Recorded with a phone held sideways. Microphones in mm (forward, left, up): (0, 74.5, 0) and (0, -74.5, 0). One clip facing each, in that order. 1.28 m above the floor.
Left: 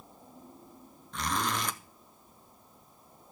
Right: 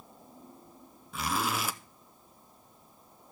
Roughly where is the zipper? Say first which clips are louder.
Right 1 dB; centre.